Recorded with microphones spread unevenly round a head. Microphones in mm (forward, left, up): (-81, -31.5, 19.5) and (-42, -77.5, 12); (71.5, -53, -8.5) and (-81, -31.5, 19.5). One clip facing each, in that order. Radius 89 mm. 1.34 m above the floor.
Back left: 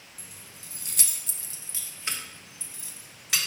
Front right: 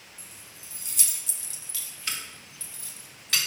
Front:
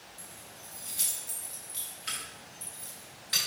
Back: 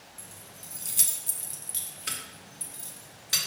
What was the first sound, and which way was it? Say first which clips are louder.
Keys jangling: even, even; 100° left.